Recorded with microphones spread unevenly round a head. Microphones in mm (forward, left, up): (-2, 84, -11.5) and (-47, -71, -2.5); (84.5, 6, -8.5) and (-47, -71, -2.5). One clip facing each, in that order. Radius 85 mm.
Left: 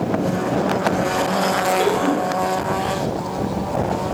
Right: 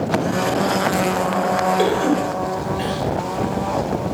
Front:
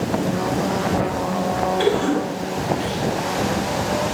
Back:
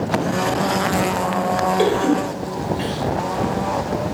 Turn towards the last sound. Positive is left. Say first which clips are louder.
# right 1 dB, back 1 dB
turn(degrees=-155)